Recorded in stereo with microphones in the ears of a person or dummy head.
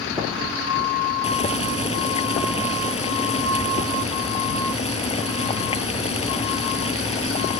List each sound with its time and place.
1.2 s boiling: 35° left (ahead or behind)